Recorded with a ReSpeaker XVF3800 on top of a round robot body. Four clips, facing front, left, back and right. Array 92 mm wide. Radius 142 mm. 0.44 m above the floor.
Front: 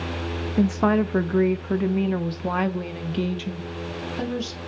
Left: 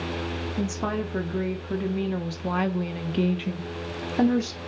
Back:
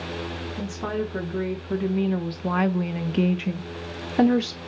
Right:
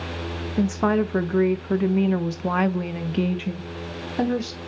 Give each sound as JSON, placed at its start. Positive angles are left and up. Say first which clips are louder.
{"t": 0.6, "sound": "a woman speaking", "louder": "right 8 dB, front 9 dB", "azimuth_deg": -35, "distance_m": 1.4}